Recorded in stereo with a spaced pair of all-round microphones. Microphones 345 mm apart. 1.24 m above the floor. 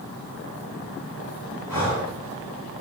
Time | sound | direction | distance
1.7 | breathing | 75° left (ahead or behind) | 2.5 m